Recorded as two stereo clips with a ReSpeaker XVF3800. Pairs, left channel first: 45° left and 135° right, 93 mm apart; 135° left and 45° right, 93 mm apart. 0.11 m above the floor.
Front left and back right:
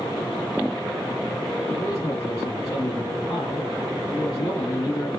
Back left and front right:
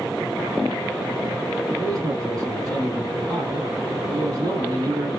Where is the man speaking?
5° right, 2 m.